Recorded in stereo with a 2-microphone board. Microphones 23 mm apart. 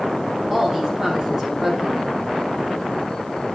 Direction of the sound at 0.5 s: 20° right (ahead or behind).